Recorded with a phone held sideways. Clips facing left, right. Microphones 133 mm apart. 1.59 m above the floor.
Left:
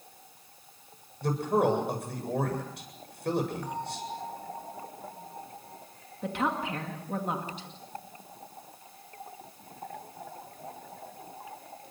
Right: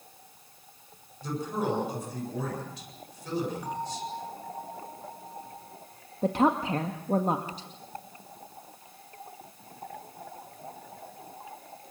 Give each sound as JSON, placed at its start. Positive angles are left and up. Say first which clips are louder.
{"t": 1.2, "sound": "a man speaking", "louder": "left 5 dB", "side_deg": 65, "distance_m": 8.0}
{"t": 3.6, "sound": "a bell", "louder": "right 2 dB", "side_deg": -10, "distance_m": 9.0}
{"t": 6.2, "sound": "a woman speaking", "louder": "right 6 dB", "side_deg": -35, "distance_m": 1.9}